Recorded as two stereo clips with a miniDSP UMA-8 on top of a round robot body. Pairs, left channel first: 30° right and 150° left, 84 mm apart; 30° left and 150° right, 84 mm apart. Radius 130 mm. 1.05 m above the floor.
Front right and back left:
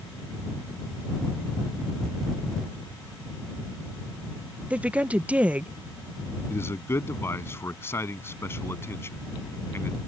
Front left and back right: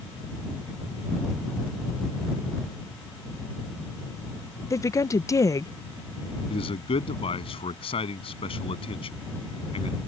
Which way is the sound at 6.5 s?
35° left.